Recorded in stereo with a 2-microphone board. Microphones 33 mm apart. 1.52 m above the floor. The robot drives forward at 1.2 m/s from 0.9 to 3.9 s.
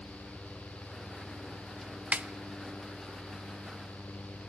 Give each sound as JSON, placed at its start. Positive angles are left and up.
{"t": 2.1, "sound": "a snare drum", "side_deg": -45, "distance_m": 0.6}